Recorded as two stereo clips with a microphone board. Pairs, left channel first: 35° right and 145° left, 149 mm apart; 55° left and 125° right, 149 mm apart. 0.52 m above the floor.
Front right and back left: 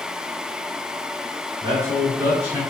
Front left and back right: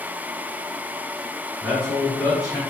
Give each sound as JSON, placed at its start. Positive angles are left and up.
{"t": 1.6, "sound": "a man speaking", "azimuth_deg": 160, "distance_m": 1.2}